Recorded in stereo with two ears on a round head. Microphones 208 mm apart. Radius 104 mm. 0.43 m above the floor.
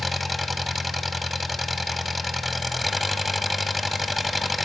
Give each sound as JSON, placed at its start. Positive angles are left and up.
{"t": 0.0, "sound": "an engine running", "side_deg": 0, "distance_m": 1.0}